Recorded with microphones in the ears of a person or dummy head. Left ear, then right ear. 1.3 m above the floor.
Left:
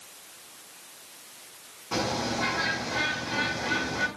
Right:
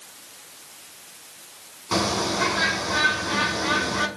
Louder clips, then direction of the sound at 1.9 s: Right 5 dB; 65° right (ahead or behind).